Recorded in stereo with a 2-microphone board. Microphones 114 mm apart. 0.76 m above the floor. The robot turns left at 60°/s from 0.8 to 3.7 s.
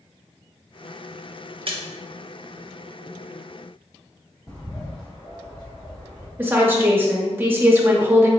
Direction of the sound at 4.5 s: 35° left (ahead or behind).